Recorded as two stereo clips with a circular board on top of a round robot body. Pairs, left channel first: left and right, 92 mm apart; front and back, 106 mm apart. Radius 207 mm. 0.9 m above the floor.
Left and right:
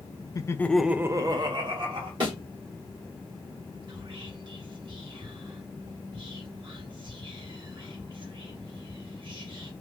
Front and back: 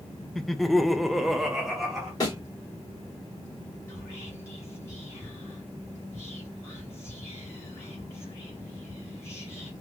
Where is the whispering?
65° right, 2.5 m.